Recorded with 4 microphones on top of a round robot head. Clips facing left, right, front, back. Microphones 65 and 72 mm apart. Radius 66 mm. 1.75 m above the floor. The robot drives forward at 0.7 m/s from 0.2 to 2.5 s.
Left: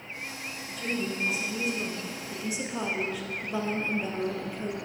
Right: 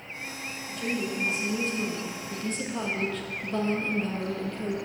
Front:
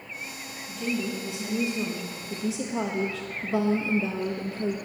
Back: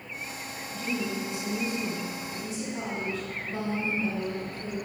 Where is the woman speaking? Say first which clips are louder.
Right 1 dB, front 2 dB; 5° left, 2.5 m; by 4.8 s 10° left, 1.0 m.